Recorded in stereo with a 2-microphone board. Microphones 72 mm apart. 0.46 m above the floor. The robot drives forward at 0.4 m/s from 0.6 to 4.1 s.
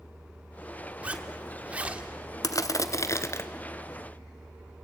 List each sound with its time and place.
1.0 s a zipper: 20° right (ahead or behind), 1.4 m
2.4 s crushing: 55° left (ahead or behind), 0.8 m; by 3.5 s 40° left (ahead or behind), 1.1 m